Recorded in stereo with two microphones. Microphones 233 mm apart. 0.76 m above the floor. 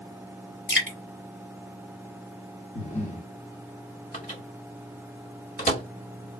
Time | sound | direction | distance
0.7 | dripping | 60° left (ahead or behind) | 2.5 m
2.8 | breathing | 30° left (ahead or behind) | 0.9 m
4.1 | a microwave | 40° left (ahead or behind) | 1.5 m